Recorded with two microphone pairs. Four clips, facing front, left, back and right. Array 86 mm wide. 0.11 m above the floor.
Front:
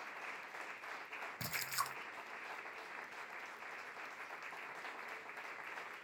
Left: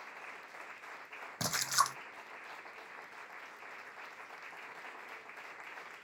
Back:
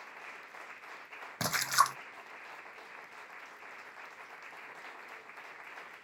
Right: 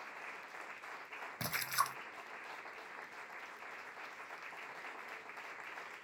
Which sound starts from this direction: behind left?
A splash, at 1.4 s.